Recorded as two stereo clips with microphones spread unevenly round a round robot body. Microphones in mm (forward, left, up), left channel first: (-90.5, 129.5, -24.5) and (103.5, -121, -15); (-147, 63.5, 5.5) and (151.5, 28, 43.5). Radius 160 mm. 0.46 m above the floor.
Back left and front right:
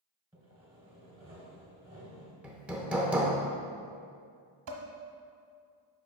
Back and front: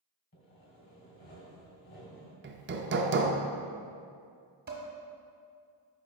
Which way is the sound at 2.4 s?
35° left.